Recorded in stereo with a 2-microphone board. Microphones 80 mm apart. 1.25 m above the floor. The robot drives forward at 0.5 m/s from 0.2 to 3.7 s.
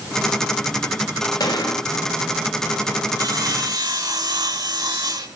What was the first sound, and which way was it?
A gunshot, 65° left (ahead or behind).